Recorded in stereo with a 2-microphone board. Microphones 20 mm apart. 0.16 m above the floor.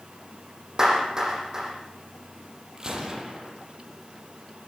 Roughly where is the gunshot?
Right.